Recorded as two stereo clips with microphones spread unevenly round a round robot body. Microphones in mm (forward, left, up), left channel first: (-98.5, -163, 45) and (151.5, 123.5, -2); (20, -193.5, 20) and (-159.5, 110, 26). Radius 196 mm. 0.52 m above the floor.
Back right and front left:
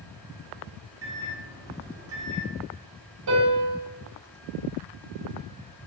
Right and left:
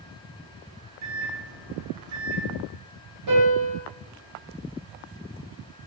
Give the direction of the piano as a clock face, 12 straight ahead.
9 o'clock.